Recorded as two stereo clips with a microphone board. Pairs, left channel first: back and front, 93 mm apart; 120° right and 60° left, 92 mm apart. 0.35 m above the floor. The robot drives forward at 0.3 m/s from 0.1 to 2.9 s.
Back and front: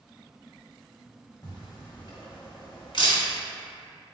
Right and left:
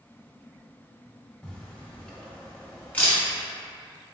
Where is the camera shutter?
165° left, 1.0 m; by 3.2 s 170° left, 1.3 m.